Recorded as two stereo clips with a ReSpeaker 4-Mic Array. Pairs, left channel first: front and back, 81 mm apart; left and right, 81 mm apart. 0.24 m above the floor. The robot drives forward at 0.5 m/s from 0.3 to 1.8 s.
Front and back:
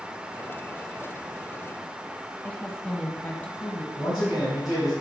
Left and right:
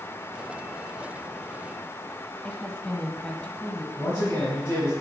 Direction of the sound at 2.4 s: 40° left.